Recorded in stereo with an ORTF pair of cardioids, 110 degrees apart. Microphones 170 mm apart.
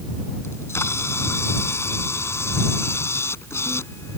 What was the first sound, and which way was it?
A camera shutter, 15° left.